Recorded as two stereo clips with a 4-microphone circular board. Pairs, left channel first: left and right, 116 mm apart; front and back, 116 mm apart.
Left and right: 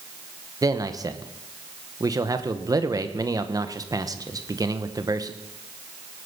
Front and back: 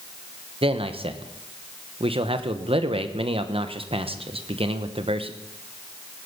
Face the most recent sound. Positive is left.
turn(degrees=-150)